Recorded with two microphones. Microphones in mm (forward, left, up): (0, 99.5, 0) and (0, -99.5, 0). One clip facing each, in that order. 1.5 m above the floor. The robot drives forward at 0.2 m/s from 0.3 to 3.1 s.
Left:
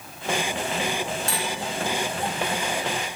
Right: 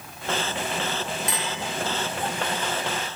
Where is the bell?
20° right (ahead or behind).